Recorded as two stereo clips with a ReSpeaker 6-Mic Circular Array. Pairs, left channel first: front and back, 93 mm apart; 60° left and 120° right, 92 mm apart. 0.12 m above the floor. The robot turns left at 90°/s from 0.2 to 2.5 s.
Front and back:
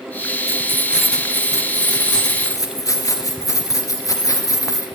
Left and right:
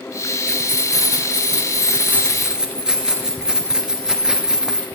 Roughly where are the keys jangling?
Behind left.